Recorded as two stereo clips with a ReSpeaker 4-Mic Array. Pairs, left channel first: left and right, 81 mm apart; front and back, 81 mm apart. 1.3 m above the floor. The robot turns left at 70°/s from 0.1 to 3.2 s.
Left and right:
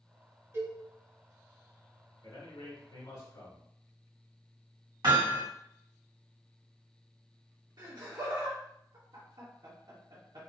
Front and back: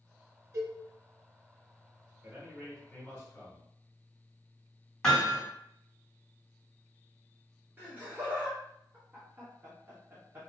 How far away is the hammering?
About 2.0 m.